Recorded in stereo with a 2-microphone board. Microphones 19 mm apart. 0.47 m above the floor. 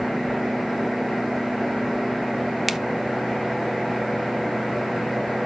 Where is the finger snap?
10° right (ahead or behind), 0.5 m.